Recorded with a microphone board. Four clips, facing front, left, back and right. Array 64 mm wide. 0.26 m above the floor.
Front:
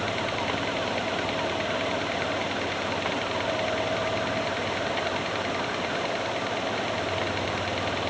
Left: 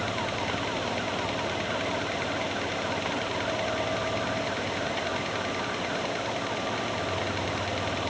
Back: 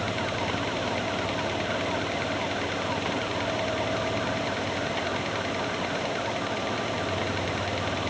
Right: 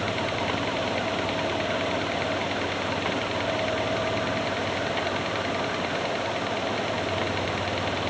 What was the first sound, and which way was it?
Only background noise.